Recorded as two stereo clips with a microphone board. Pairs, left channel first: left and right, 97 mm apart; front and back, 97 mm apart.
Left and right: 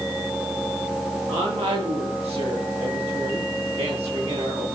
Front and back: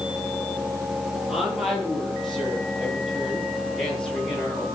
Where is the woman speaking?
90° right, 8.5 m; by 4.7 s 80° right, 7 m.